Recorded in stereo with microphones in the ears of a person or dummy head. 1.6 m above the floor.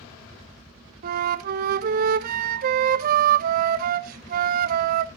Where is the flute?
55° right (ahead or behind), 0.6 m.